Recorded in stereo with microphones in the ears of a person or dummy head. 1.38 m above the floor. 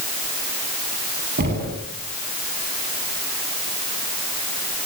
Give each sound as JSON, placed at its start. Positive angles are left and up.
{"t": 1.4, "sound": "knocking", "side_deg": -55, "distance_m": 9.0}